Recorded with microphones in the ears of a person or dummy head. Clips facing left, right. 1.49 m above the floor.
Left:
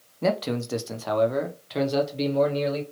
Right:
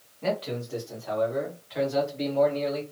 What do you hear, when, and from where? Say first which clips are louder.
0.2 s a man speaking: left 4 dB; 55° left (ahead or behind), 0.7 m; by 2.8 s 40° left (ahead or behind), 1.4 m